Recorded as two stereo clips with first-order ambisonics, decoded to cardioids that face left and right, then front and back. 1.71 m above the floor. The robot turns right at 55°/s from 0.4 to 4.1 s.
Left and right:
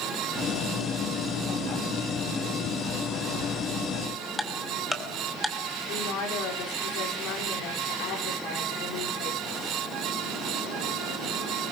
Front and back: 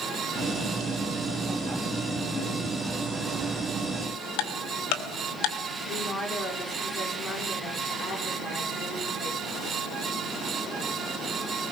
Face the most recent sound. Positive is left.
turn(degrees=60)